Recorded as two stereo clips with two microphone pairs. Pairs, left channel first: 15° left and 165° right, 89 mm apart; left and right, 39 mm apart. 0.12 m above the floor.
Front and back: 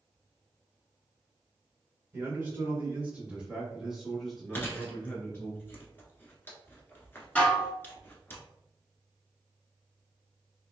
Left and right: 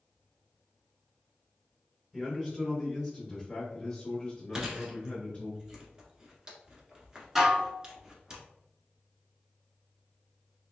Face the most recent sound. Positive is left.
turn(degrees=-25)